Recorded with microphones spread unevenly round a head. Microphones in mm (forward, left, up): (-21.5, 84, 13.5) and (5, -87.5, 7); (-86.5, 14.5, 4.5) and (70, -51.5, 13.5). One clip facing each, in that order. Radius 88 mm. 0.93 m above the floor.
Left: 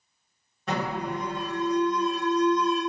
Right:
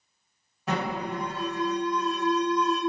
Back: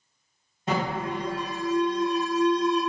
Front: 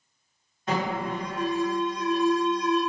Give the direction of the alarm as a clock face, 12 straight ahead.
5 o'clock.